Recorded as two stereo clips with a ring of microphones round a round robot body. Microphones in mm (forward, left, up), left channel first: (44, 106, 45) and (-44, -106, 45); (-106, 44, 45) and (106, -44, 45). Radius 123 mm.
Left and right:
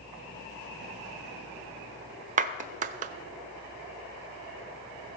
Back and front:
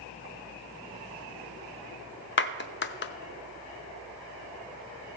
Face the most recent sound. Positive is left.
turn(degrees=-165)